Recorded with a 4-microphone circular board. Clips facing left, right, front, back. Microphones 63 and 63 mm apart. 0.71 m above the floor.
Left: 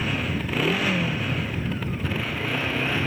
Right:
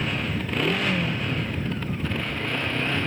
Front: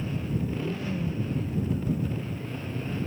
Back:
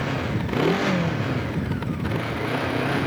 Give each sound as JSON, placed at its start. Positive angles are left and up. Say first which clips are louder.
{"t": 0.0, "sound": "a motorcycle", "louder": "left 1 dB, back 5 dB", "azimuth_deg": 175}